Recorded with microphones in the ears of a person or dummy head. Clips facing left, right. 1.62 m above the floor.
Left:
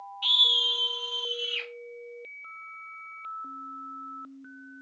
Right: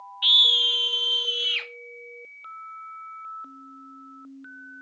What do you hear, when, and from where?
0.2 s a scream: 20° right (ahead or behind), 0.8 m; by 1.7 s 65° right (ahead or behind), 1.4 m